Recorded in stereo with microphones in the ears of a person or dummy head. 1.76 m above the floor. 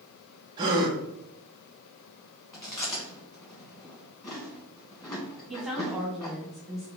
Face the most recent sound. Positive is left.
turn(degrees=0)  # may be behind; listen again after turning